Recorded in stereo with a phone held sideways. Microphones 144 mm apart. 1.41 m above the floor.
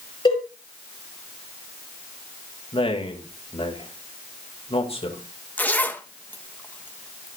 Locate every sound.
0.2 s a cowbell: 30° left (ahead or behind), 8 m
2.7 s a man speaking: 40° left (ahead or behind), 2.5 m
5.6 s a zipper: 10° left (ahead or behind), 1.1 m